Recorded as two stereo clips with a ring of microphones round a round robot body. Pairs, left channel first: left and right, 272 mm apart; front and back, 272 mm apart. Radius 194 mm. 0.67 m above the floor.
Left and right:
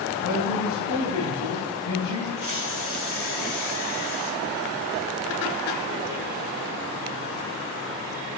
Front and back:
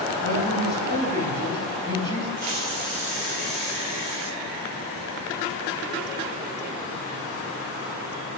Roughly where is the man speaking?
Behind left.